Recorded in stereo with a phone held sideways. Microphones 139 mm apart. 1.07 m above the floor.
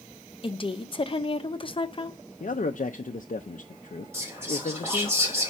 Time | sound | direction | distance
0.4 | a woman speaking | 40° left (ahead or behind) | 0.8 m
2.4 | a man speaking | 65° left (ahead or behind) | 0.5 m
4.1 | whispering | 20° right (ahead or behind) | 4 m